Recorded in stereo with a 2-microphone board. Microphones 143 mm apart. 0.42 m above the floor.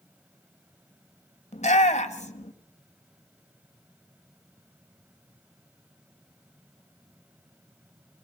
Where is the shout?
50° left (ahead or behind), 1.7 m.